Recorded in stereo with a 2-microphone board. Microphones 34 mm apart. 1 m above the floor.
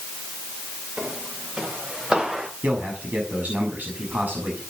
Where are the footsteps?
35° right (ahead or behind), 5.5 m; by 2.5 s 30° right (ahead or behind), 4 m.